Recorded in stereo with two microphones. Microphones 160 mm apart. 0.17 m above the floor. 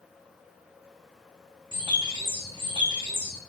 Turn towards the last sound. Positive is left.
turn(degrees=-30)  # may be behind; listen again after turning